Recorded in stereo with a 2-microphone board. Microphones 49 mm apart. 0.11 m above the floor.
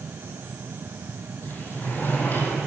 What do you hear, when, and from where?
1.4 s a sliding door: 45° left (ahead or behind), 2.5 m